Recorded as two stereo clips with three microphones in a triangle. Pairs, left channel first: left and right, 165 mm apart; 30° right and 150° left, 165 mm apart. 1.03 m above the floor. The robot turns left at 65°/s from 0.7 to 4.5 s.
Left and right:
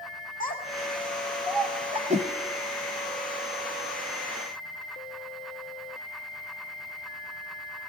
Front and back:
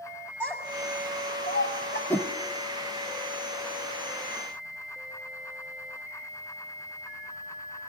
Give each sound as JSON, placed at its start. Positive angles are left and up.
{"t": 0.4, "sound": "a child speaking", "azimuth_deg": 50, "distance_m": 6.5}
{"t": 2.1, "sound": "a whoosh", "azimuth_deg": -105, "distance_m": 1.0}